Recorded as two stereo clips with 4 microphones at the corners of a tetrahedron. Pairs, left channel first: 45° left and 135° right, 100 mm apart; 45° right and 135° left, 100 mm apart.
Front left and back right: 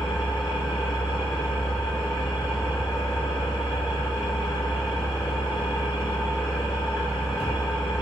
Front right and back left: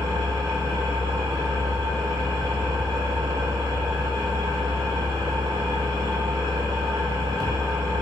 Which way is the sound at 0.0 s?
90° left.